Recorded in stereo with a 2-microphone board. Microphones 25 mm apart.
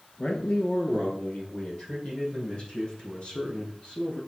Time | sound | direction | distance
0.2 | a man speaking | 50° left (ahead or behind) | 1.7 m